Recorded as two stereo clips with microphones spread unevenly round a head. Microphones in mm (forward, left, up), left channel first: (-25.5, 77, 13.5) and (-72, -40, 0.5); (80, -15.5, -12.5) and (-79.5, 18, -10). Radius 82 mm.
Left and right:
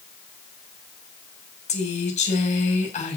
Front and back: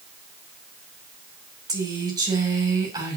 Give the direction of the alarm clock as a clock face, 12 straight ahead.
No alarm clock in this recording.